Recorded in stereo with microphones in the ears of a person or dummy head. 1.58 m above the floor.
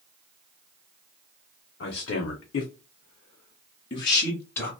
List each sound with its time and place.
1.8 s a man speaking: 60° left (ahead or behind), 0.7 m; by 4.7 s 10° left (ahead or behind), 1.2 m